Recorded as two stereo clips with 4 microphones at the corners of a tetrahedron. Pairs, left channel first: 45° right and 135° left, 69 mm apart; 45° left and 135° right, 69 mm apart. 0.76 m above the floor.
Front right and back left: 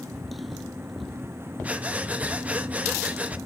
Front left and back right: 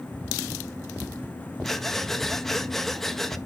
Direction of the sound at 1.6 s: 125° left.